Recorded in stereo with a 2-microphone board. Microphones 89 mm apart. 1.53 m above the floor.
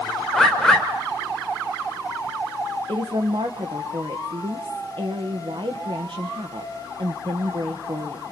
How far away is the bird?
About 3 m.